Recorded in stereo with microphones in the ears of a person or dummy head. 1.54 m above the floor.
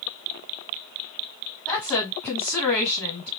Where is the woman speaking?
10° left (ahead or behind), 3 m.